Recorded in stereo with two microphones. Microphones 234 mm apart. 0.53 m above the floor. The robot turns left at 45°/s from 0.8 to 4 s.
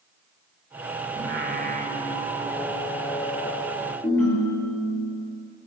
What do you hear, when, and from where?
1.2 s singing: 115° right, 1.1 m; by 3.9 s 120° left, 1.1 m
4.0 s a ringtone: 10° left (ahead or behind), 4.5 m